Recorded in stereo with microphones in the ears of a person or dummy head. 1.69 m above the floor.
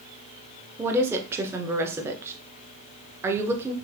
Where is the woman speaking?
10° right (ahead or behind), 0.8 m.